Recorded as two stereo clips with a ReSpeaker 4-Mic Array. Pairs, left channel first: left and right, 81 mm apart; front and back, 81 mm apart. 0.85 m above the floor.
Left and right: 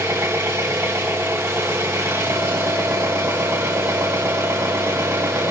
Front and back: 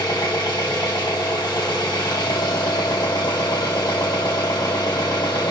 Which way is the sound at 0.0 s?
35° right.